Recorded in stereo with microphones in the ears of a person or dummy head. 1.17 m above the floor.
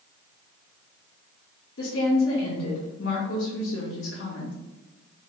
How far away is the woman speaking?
About 1.4 m.